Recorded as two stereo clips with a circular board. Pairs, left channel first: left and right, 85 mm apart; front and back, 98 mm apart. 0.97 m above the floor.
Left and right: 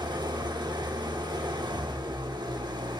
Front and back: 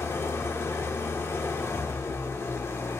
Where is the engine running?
60° right, 1.1 m.